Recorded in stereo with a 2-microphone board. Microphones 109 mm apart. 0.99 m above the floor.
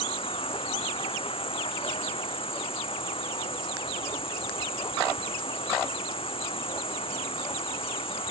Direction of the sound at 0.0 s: 60° left (ahead or behind).